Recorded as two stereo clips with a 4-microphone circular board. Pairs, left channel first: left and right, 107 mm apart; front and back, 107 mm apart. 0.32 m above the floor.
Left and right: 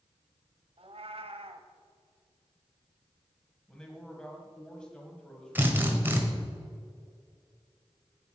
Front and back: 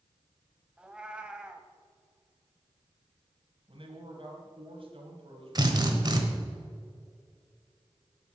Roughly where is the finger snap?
No finger snap in this recording.